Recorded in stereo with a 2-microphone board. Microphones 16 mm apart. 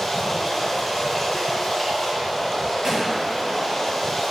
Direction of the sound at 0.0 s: Centre (ahead or behind).